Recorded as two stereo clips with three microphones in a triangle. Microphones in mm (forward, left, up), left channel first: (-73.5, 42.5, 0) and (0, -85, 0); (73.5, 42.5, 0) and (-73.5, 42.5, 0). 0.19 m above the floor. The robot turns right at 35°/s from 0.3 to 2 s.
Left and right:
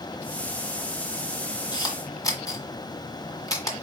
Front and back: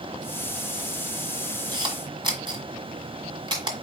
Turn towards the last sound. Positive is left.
turn(degrees=160)